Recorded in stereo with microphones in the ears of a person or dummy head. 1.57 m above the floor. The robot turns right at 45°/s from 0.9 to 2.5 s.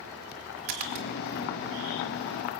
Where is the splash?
30° right (ahead or behind), 1.2 m; by 1.1 s 35° right (ahead or behind), 1.2 m.